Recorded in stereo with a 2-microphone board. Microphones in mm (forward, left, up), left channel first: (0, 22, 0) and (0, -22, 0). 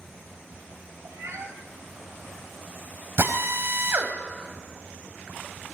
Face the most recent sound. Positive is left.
turn(degrees=-60)  # may be behind; listen again after turning